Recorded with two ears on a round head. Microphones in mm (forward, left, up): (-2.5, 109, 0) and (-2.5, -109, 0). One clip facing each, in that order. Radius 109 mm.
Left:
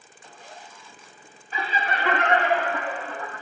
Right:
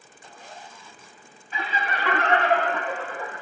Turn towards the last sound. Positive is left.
turn(degrees=-10)  # may be behind; listen again after turning